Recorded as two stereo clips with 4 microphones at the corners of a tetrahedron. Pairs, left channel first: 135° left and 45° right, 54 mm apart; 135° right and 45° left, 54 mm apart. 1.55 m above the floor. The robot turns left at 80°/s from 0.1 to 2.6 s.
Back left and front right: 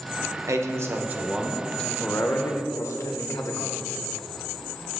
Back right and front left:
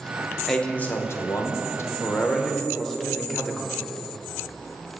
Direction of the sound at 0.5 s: 50° right.